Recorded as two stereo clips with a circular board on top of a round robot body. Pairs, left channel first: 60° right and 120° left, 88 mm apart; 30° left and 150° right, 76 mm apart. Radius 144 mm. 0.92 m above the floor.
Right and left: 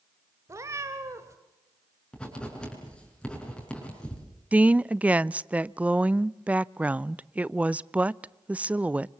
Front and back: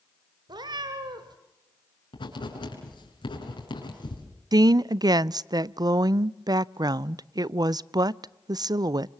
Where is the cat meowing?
Straight behind, 1.6 m.